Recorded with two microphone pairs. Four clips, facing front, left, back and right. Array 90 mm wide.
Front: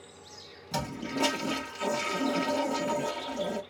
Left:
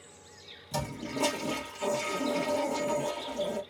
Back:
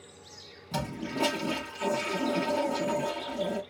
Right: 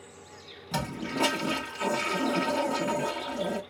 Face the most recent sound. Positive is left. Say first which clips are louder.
# right 3 dB, even
turn(degrees=-95)